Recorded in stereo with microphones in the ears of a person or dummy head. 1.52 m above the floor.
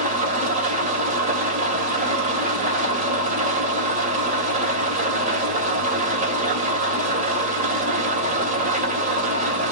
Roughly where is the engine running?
Right.